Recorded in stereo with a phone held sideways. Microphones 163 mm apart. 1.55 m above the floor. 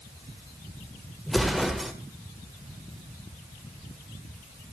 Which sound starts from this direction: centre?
An explosion, at 1.3 s.